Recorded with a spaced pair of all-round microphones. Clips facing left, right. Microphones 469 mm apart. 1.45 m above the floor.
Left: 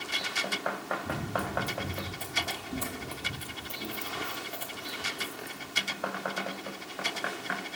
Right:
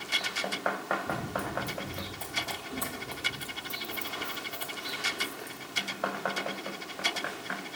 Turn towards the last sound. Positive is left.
turn(degrees=50)  # may be behind; listen again after turning